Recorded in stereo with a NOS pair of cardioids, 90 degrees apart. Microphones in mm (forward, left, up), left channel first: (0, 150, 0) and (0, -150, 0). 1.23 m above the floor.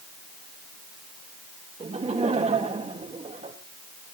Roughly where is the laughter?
Ahead.